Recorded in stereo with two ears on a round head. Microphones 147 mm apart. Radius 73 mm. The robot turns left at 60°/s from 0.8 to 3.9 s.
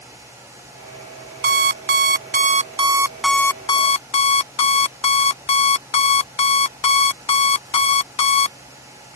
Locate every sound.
1.4 s an alarm clock: 70° right; by 8.6 s 140° left